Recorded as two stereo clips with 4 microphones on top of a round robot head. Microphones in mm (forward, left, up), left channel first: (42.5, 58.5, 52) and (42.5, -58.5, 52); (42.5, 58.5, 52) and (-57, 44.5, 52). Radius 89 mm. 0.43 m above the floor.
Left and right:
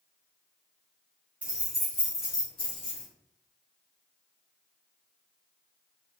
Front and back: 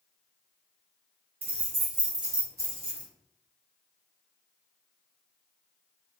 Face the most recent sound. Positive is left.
turn(degrees=115)